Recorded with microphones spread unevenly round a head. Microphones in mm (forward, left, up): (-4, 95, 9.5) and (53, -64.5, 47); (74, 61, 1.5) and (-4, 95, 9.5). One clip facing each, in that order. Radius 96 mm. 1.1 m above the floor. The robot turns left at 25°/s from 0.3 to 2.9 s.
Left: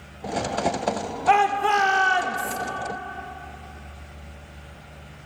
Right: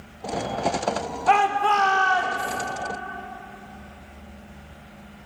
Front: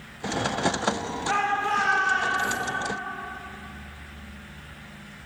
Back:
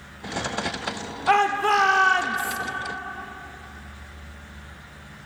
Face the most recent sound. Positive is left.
turn(degrees=150)